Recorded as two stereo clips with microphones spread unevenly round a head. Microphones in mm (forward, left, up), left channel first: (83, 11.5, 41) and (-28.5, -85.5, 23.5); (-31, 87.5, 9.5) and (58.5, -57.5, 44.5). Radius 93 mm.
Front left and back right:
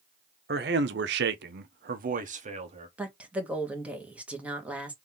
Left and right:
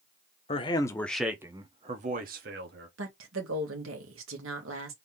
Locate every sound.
0.5 s a man speaking: 175° right, 0.9 m; by 2.9 s 90° right, 1.4 m
3.0 s a woman speaking: 55° right, 1.7 m